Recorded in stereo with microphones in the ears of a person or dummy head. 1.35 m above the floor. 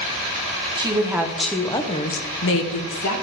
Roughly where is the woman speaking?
Right.